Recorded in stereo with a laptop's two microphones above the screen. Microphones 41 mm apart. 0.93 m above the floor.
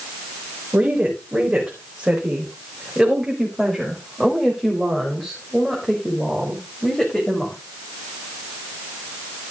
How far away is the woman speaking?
About 4 m.